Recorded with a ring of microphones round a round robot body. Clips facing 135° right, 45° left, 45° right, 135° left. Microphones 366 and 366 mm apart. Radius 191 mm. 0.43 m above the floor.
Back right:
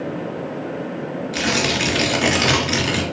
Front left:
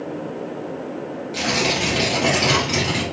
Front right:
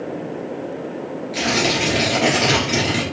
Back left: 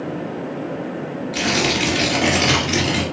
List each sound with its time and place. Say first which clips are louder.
1.3 s tearing paper: even, even; 145° right, 1.8 m